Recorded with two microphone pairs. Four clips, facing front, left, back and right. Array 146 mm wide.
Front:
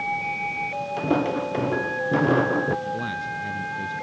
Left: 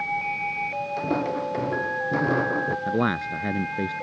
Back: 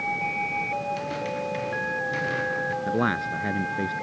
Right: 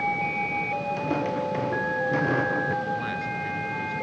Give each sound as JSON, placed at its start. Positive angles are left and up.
{"t": 1.0, "sound": "footsteps", "azimuth_deg": 10}
{"t": 2.9, "sound": "a man speaking", "azimuth_deg": 125}